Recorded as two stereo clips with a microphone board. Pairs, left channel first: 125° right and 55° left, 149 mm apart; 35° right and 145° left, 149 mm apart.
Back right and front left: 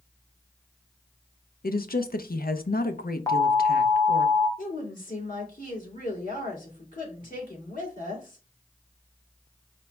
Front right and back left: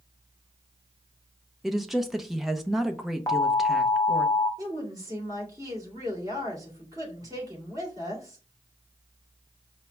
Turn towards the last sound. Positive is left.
turn(degrees=-150)